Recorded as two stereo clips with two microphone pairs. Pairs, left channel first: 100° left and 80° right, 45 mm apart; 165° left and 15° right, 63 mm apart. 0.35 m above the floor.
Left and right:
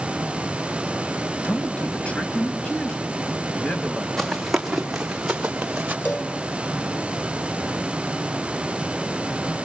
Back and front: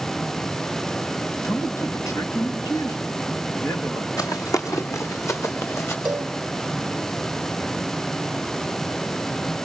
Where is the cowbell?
50° left, 3 m.